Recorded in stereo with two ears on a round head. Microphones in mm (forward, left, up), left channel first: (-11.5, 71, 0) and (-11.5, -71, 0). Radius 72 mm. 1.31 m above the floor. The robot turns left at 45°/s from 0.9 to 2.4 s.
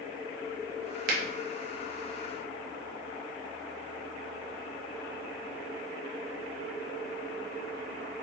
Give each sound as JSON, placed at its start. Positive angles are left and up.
{"t": 1.1, "sound": "a finger snap", "side_deg": -60, "distance_m": 0.7}